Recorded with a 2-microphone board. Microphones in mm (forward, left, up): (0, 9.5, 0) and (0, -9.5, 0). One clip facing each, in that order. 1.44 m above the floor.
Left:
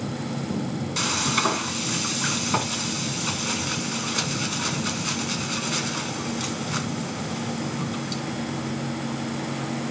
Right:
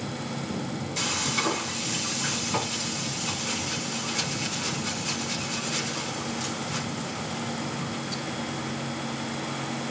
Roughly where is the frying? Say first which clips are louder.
Left 4 dB; left.